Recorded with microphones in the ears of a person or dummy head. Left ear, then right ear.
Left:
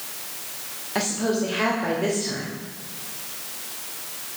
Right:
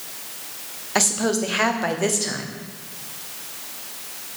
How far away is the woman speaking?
About 1.0 m.